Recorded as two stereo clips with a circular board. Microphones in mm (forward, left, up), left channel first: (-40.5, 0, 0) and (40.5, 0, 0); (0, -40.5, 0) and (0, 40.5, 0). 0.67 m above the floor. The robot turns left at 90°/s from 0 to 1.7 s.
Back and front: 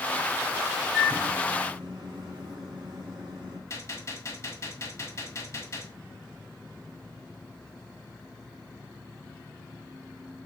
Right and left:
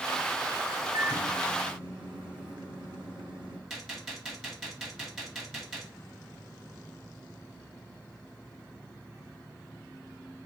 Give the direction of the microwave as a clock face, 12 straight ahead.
9 o'clock.